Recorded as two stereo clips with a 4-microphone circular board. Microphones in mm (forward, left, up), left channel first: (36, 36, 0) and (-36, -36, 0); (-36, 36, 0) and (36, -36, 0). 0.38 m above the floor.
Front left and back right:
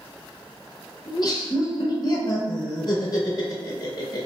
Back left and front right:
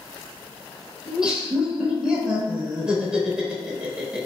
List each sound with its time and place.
1.1 s laughter: 35° left, 1.0 m